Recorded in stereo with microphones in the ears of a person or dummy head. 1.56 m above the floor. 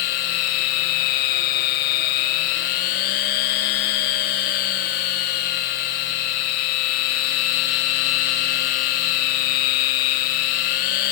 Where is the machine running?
45° left (ahead or behind), 1.3 m.